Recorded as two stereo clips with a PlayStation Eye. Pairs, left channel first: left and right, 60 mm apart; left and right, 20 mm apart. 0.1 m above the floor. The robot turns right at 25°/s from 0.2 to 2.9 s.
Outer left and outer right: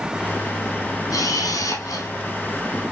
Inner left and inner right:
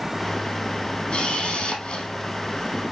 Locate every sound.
1.1 s a camera shutter: 65° left (ahead or behind), 3 m; by 2.1 s 70° left (ahead or behind), 3 m